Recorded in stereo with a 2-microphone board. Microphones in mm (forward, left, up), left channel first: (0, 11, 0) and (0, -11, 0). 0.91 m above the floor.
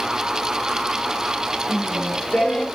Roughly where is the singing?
Left.